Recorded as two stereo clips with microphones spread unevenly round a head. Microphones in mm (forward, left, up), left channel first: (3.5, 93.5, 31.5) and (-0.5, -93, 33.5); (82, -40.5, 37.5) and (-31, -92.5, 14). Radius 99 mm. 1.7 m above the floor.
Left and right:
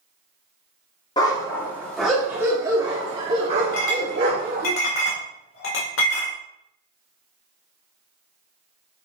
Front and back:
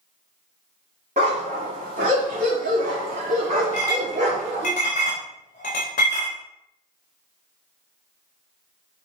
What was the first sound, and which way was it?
A dog barking, 150° left.